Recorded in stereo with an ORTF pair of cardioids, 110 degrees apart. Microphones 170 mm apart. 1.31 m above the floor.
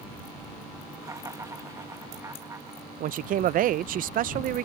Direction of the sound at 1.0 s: 20° right.